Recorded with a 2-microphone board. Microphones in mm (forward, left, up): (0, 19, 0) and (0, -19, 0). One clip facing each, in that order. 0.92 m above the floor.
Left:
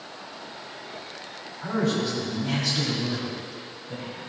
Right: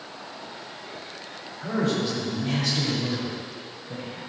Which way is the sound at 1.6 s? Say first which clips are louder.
Even; 20° right (ahead or behind).